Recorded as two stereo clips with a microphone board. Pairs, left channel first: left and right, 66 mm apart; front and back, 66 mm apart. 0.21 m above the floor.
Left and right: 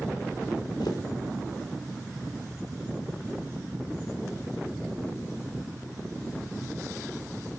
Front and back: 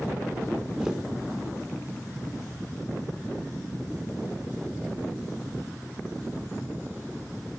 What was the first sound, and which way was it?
Footsteps, 100° left.